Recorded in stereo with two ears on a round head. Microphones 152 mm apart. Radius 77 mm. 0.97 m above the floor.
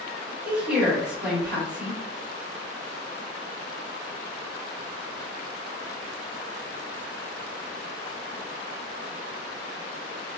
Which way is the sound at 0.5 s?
5° right (ahead or behind).